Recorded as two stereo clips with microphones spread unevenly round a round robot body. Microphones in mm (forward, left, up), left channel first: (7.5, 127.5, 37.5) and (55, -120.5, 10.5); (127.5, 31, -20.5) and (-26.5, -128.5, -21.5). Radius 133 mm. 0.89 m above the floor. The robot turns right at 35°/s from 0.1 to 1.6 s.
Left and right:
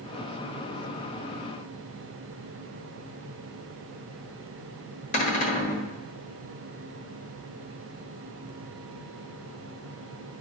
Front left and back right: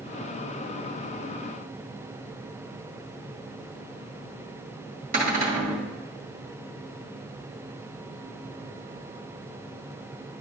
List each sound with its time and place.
5.1 s a cupboard door: 165° left, 1.6 m